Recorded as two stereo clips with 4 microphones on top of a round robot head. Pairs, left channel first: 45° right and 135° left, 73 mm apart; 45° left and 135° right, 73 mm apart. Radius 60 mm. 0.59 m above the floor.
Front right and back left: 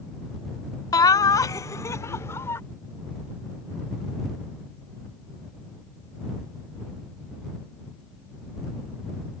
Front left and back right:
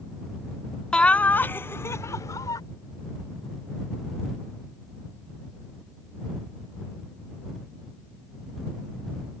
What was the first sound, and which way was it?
Laughter, 30° right.